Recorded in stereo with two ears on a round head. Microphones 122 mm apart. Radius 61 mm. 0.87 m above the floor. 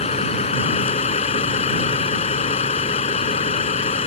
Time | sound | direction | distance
0.0 | a vehicle | 50° left (ahead or behind) | ?